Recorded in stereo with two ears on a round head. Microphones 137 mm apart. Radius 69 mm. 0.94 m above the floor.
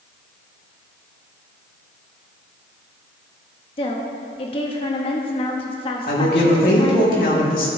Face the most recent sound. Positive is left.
turn(degrees=65)  # may be behind; listen again after turning